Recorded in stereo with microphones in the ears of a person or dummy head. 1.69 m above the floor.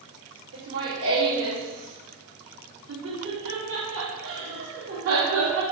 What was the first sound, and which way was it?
Laughter, 75° right (ahead or behind).